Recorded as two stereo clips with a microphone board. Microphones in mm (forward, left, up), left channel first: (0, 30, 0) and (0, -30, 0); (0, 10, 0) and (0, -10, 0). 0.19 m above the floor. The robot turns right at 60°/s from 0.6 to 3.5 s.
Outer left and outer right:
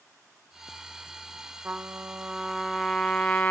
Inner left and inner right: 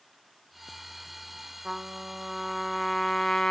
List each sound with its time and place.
1.6 s a trumpet: 70° right, 0.9 m; by 3.5 s 40° left, 0.9 m